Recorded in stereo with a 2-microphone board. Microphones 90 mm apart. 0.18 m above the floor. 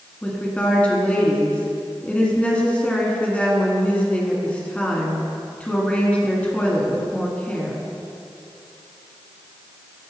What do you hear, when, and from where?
0.2 s a woman speaking: 15° left (ahead or behind), 1.9 m